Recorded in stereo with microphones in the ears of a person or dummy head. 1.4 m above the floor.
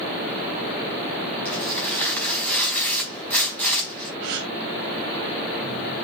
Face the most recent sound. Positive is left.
turn(degrees=-60)  # may be behind; listen again after turning